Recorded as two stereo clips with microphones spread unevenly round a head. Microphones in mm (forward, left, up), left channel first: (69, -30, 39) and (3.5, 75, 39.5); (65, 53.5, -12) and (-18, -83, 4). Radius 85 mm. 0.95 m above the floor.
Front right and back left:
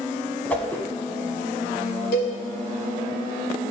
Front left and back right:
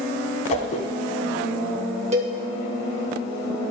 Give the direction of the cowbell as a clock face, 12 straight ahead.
2 o'clock.